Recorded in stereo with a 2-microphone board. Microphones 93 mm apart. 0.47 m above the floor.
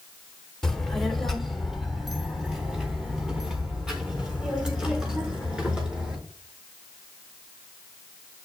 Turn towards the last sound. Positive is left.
turn(degrees=-10)  # may be behind; listen again after turning